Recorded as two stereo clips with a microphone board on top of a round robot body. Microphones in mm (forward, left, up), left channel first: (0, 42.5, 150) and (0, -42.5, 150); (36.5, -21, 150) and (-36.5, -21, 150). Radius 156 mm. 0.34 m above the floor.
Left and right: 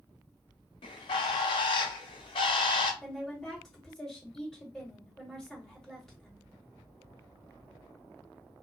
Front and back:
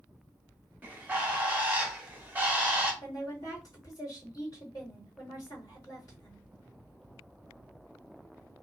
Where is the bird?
110° left, 0.6 m.